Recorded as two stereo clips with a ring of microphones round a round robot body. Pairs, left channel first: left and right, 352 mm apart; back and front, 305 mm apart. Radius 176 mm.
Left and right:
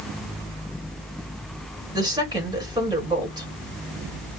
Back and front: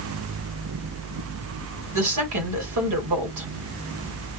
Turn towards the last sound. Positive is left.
turn(degrees=-15)